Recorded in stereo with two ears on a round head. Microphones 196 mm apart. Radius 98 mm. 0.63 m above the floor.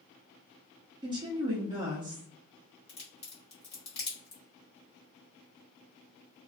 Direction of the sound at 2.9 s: 30° left (ahead or behind).